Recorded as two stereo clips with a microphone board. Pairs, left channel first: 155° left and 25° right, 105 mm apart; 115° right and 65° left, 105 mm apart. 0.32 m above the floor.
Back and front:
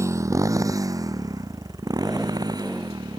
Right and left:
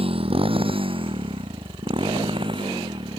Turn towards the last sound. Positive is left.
turn(degrees=30)